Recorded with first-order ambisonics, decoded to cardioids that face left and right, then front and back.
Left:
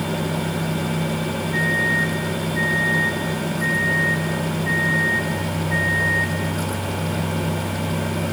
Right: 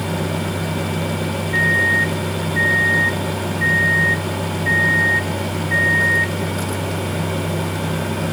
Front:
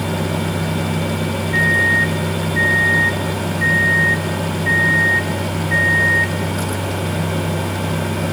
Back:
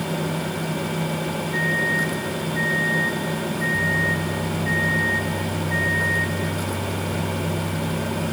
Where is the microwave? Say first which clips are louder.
Right 5 dB, front 8 dB; 40° right, 1.1 m.